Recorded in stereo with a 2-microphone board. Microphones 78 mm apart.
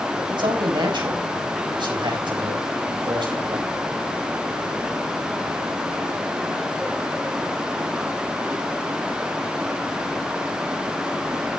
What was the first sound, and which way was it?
A man speaking, 75° right (ahead or behind).